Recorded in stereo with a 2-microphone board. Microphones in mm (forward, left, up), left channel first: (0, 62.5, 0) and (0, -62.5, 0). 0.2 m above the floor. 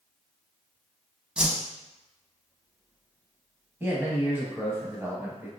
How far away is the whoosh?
About 0.5 m.